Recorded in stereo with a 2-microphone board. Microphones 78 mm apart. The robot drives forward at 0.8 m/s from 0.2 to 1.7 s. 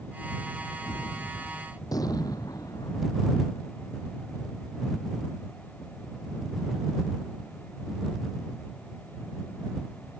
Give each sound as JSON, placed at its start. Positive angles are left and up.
{"t": 0.8, "sound": "a gunshot", "side_deg": 55}